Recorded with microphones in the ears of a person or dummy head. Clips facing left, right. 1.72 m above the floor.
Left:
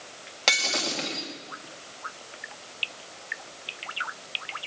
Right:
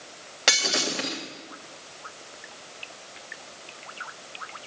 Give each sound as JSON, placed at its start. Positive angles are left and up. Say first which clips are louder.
{"t": 0.5, "sound": "breaking glass", "louder": "right 2 dB", "side_deg": -10, "distance_m": 1.9}